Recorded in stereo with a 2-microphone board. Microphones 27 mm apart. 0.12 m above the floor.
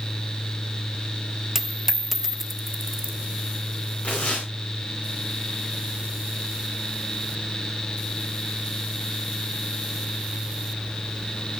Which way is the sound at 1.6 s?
10° right (ahead or behind).